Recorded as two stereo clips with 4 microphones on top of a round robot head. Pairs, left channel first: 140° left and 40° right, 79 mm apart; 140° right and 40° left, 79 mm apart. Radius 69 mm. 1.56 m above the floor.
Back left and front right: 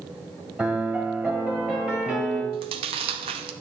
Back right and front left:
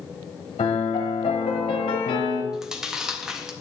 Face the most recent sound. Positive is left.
turn(degrees=-45)